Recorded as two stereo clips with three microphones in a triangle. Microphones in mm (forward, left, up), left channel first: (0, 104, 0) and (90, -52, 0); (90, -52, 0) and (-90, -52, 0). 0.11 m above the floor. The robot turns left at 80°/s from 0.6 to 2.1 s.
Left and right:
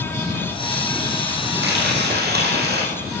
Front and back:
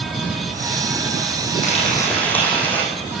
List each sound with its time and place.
1.6 s frying: 45° right, 4.5 m; by 2.8 s 80° right, 4.5 m